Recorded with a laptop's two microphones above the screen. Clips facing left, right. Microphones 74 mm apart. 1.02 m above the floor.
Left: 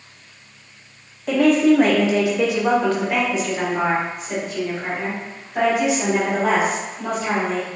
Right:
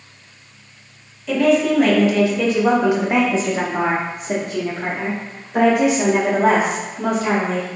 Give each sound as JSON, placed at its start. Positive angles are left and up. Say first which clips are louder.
{"t": 1.3, "sound": "a woman speaking", "louder": "left 1 dB", "side_deg": 50, "distance_m": 1.1}